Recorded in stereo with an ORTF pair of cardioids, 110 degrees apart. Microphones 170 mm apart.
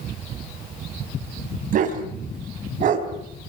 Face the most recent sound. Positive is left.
turn(degrees=-55)